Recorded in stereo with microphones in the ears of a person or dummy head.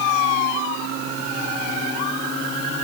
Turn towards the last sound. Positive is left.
No sound to turn to.